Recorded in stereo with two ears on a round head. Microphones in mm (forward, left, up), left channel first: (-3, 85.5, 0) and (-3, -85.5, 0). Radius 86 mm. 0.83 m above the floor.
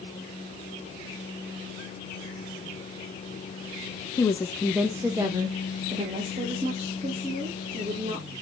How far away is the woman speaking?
About 0.5 m.